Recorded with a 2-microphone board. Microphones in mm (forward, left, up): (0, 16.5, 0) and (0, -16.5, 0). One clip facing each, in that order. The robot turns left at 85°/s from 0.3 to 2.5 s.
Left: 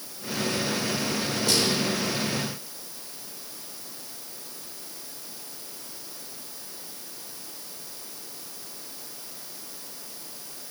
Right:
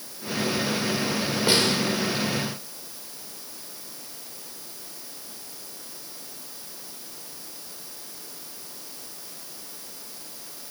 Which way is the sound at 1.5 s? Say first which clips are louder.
Right 3 dB; 25° right (ahead or behind).